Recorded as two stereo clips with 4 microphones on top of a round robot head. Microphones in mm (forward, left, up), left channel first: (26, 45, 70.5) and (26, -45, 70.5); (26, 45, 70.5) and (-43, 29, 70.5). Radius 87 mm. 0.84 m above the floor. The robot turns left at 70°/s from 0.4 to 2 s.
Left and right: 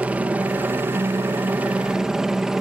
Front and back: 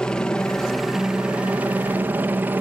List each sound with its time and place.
0.0 s a helicopter: 45° right; by 2.6 s 170° right